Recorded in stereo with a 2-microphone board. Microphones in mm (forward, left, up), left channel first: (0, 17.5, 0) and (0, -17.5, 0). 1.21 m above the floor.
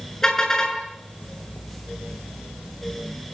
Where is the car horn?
15° left (ahead or behind), 8 m.